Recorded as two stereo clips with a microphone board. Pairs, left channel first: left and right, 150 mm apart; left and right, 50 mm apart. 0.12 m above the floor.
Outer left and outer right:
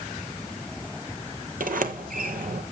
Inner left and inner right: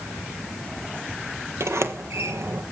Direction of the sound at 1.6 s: 65° right (ahead or behind).